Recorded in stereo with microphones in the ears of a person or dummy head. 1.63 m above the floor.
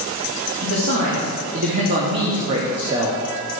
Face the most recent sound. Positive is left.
turn(degrees=-25)  # may be behind; listen again after turning